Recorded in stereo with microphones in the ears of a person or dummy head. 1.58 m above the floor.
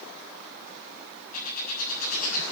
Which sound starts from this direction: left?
A bird, at 1.3 s.